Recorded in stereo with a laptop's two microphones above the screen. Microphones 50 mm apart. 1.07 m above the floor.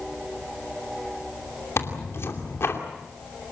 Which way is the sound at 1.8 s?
55° left (ahead or behind).